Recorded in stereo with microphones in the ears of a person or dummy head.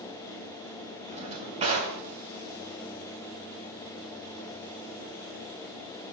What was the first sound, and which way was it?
A drawer, 30° right (ahead or behind).